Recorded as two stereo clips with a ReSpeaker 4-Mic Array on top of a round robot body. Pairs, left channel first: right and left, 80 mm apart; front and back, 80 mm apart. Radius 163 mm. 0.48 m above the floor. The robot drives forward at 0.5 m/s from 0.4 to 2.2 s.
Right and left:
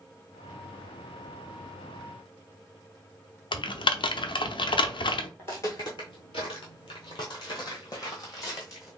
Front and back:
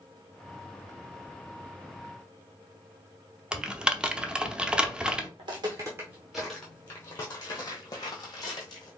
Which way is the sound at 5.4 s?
155° right.